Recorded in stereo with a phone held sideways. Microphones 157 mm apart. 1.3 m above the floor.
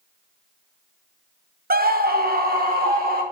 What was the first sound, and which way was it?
A scream, 70° right (ahead or behind).